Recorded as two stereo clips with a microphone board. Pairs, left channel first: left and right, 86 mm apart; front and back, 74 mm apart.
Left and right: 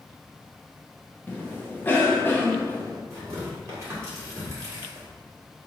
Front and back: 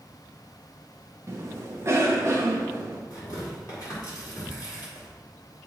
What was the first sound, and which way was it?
A cough, 150° left.